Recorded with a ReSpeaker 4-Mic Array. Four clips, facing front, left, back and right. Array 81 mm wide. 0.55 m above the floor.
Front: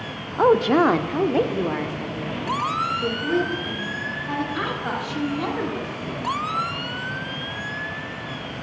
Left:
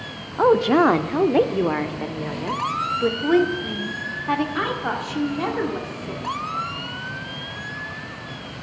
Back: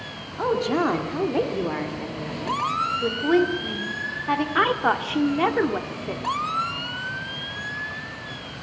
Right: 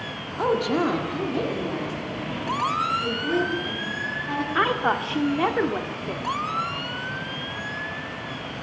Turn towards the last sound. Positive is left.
turn(degrees=-155)